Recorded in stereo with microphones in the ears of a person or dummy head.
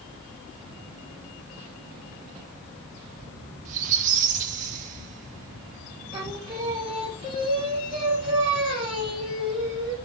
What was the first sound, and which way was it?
A squeak, 45° right (ahead or behind).